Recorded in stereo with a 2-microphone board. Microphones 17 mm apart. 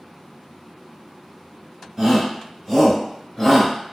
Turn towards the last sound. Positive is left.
turn(degrees=10)  # may be behind; listen again after turning